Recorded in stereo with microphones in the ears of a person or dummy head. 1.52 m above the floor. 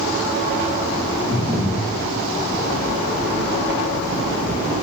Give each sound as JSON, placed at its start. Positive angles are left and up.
{"t": 1.3, "sound": "breathing", "side_deg": -20, "distance_m": 2.5}